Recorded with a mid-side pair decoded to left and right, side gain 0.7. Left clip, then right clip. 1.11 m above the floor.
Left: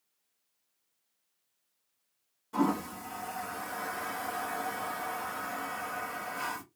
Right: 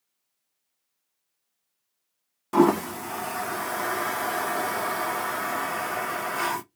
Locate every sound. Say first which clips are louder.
2.5 s a toilet flushing: right 10 dB; 60° right, 0.5 m